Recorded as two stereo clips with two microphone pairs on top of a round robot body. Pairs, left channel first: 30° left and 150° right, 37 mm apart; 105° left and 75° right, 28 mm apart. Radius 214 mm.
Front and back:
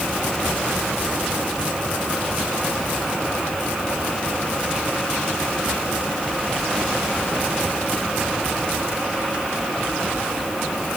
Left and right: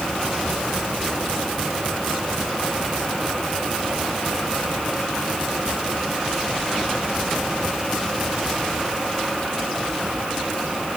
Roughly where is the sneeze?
I don't hear a sneeze.